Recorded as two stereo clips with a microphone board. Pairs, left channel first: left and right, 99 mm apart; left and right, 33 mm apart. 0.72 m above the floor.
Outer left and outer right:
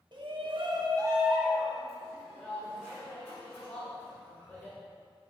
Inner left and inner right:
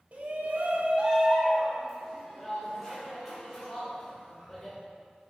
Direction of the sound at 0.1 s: 50° right (ahead or behind).